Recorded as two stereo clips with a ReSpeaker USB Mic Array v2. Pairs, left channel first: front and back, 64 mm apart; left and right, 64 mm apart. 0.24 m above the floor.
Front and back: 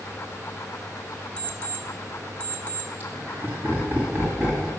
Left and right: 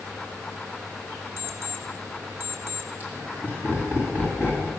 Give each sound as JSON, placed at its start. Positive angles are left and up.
{"t": 1.4, "sound": "an alarm clock", "azimuth_deg": -60, "distance_m": 1.0}
{"t": 3.0, "sound": "laughter", "azimuth_deg": -135, "distance_m": 1.9}